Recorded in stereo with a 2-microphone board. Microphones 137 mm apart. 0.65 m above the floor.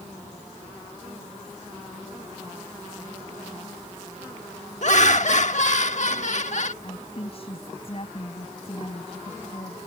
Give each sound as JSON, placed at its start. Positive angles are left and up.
{"t": 4.8, "sound": "laughter", "side_deg": 60}
{"t": 6.8, "sound": "a woman speaking", "side_deg": 45}